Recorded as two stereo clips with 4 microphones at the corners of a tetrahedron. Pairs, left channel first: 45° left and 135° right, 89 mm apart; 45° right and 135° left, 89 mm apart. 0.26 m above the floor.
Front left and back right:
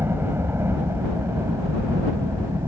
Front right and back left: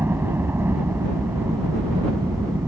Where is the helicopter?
Straight behind; by 2.7 s 175° right.